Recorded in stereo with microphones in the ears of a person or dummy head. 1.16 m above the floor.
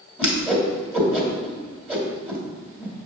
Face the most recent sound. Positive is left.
turn(degrees=-10)  # may be behind; listen again after turning